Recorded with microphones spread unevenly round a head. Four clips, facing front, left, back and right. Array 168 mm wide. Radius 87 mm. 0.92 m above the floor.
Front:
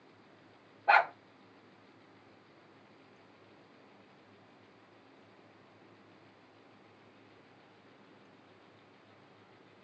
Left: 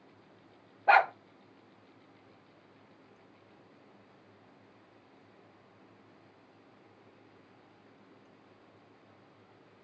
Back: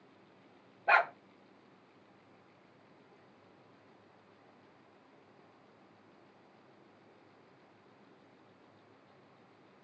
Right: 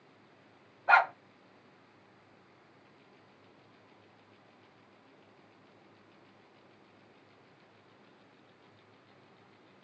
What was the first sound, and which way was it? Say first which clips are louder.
A dog barking: left 1 dB, front 2 dB; 105° left.